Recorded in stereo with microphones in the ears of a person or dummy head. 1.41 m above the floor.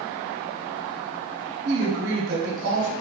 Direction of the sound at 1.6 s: 45° right (ahead or behind).